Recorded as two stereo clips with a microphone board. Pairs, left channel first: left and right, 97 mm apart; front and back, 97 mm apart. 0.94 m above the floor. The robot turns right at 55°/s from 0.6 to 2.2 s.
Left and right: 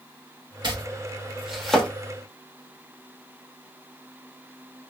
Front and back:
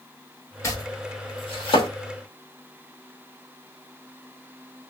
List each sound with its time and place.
0.6 s chopping: 55° right, 1.1 m; by 1.9 s 15° left, 1.1 m